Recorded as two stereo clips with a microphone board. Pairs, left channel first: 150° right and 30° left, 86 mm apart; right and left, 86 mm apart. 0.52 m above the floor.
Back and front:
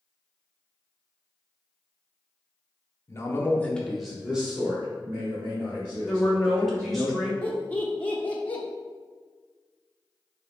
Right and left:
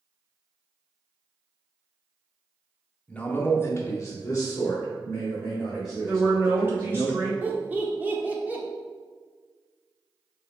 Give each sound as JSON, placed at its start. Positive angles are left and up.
{"t": 3.1, "sound": "a man speaking", "azimuth_deg": -160, "distance_m": 0.7}
{"t": 6.1, "sound": "a woman speaking", "azimuth_deg": 125, "distance_m": 0.7}
{"t": 7.4, "sound": "laughter", "azimuth_deg": 150, "distance_m": 0.9}